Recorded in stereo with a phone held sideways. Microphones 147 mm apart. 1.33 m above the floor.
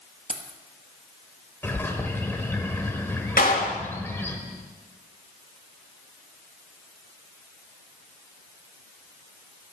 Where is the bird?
15° left (ahead or behind), 1.4 m.